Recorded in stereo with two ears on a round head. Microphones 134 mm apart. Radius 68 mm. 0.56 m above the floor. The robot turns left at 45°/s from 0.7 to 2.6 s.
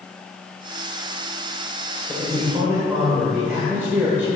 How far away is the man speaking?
About 2 m.